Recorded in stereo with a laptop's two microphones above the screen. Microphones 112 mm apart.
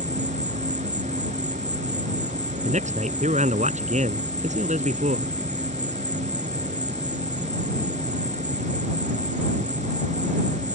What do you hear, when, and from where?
0.0 s an insect: 80° right
2.6 s a man speaking: 90° right